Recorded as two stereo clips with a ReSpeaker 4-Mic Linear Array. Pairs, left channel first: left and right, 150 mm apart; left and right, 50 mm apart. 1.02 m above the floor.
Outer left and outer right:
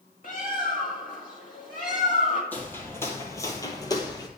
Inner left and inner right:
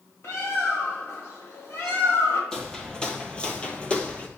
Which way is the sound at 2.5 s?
10° left (ahead or behind).